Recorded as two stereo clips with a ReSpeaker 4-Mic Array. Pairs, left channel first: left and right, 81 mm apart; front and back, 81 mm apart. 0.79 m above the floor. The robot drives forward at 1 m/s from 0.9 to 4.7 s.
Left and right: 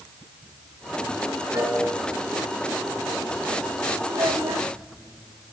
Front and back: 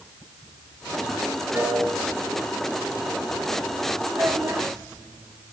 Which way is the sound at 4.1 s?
115° right.